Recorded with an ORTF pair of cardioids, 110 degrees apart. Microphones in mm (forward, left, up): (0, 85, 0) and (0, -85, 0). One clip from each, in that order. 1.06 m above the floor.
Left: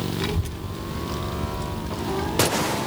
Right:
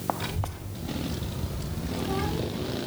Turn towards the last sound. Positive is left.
turn(degrees=5)